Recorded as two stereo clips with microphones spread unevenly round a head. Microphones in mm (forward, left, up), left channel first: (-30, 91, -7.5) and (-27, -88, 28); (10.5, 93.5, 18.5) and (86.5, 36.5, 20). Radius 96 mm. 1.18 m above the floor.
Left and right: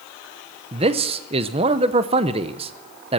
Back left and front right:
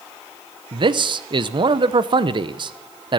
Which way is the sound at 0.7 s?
25° right.